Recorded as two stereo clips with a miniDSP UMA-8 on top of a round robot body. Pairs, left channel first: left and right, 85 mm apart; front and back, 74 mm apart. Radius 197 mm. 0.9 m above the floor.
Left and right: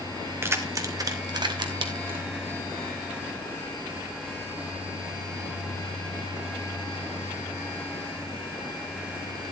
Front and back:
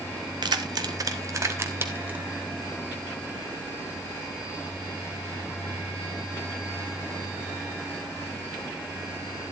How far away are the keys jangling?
About 1.2 m.